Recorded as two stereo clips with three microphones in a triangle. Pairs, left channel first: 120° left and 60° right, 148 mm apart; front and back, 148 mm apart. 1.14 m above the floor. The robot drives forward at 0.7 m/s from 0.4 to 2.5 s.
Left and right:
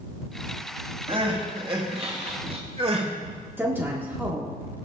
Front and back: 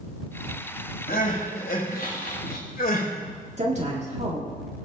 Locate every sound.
1.1 s crying: 5° right, 3 m; by 3.1 s 10° right, 2 m
3.6 s a woman speaking: 135° right, 2 m